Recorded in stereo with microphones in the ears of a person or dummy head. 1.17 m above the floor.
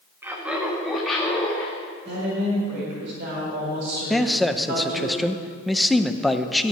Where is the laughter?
15° right (ahead or behind), 1.3 m; by 1.8 s 5° left (ahead or behind), 2 m.